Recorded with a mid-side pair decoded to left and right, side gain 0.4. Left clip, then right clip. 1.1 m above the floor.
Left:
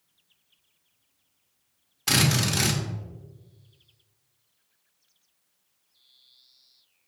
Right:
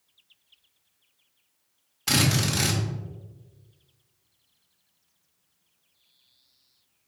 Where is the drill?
10° left, 1.3 m.